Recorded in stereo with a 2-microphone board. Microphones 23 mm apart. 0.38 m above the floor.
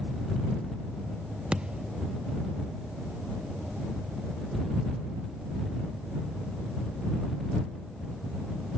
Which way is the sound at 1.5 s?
50° right (ahead or behind).